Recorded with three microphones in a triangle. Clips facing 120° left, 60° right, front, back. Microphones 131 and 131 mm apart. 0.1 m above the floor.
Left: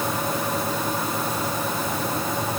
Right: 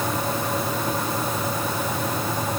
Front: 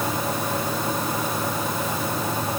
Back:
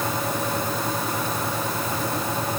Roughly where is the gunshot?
I don't hear a gunshot.